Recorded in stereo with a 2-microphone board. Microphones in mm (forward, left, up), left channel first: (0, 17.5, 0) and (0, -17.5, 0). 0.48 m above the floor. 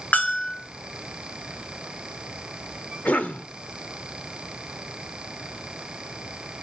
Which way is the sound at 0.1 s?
55° left (ahead or behind).